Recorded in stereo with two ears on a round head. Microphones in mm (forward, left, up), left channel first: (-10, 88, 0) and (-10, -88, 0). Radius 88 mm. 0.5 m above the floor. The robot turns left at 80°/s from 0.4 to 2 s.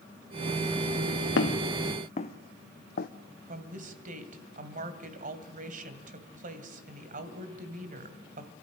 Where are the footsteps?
70° left (ahead or behind), 1.6 m; by 3.1 s 55° left (ahead or behind), 1.0 m.